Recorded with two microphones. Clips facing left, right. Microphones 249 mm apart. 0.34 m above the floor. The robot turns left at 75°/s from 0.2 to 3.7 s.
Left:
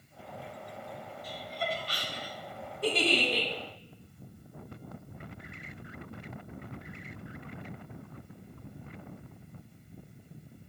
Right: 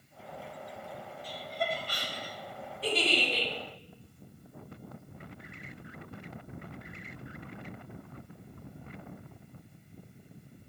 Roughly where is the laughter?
Right.